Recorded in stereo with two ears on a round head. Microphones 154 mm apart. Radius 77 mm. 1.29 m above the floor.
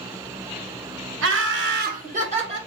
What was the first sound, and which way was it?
Laughter, 75° right (ahead or behind).